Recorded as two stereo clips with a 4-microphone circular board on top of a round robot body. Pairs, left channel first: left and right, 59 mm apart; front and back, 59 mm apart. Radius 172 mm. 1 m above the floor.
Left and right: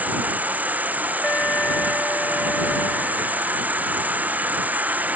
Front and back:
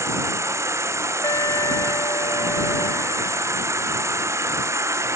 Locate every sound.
0.0 s an insect: 150° right
1.2 s an alarm: 20° left